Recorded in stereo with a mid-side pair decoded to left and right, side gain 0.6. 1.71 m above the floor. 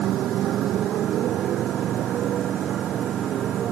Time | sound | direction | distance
0.0 | a motorcycle | 55° right | ?